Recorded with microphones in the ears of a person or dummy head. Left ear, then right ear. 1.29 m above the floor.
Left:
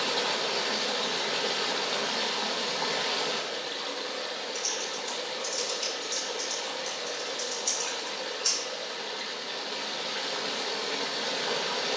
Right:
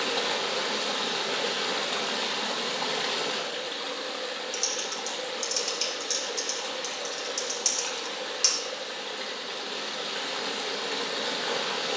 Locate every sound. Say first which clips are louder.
0.0 s running water: even; centre (ahead or behind), 0.9 m
4.5 s typing on a keyboard: right 2 dB; 70° right (ahead or behind), 3.5 m